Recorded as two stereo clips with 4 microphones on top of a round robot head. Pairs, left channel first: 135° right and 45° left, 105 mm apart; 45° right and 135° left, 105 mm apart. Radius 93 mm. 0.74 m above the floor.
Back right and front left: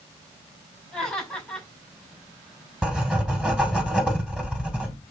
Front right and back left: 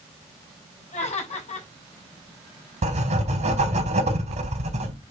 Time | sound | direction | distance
0.9 | laughter | 55° right | 5 m
2.8 | writing | 125° left | 3 m